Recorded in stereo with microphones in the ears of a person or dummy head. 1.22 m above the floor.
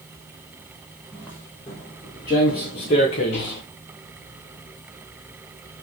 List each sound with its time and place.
1.1 s footsteps: 10° left (ahead or behind), 2 m; by 3.6 s 25° left (ahead or behind), 1.3 m